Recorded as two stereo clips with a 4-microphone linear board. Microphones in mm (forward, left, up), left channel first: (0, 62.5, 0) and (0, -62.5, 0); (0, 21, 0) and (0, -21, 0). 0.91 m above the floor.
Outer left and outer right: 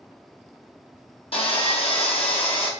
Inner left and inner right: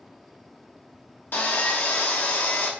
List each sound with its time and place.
1.3 s sawing: 50° left (ahead or behind), 1.1 m